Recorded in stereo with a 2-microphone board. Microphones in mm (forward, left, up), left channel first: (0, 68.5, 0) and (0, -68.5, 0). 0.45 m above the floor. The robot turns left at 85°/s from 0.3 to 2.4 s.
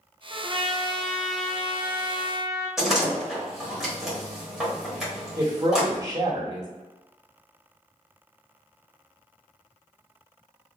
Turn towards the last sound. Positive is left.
turn(degrees=-30)  # may be behind; listen again after turning